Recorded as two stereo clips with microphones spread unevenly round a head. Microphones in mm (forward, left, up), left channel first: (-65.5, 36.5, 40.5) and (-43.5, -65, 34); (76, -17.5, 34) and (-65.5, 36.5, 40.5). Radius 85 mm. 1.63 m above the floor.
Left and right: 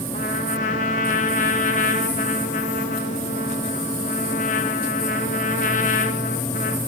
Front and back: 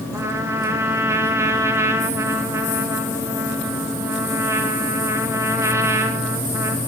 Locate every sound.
0.1 s a trumpet: 85° left, 2.5 m